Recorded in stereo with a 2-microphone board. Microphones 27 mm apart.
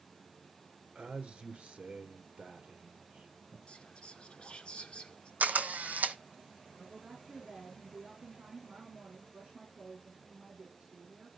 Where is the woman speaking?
50° right (ahead or behind), 5 m.